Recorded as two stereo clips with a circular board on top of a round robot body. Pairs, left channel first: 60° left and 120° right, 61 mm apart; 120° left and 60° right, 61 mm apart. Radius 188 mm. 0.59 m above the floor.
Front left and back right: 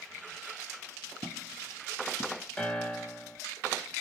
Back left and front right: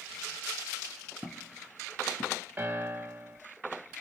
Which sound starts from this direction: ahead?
A piano, at 2.6 s.